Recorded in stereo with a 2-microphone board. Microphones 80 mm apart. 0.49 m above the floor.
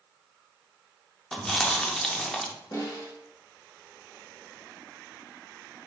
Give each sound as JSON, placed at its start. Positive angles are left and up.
{"t": 1.3, "sound": "chewing", "side_deg": 5, "distance_m": 0.5}
{"t": 2.7, "sound": "a snare drum", "side_deg": 50, "distance_m": 1.4}